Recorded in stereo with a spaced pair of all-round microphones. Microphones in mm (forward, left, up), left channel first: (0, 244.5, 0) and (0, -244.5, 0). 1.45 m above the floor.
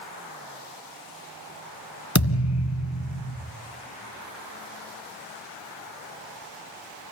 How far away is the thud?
About 2 m.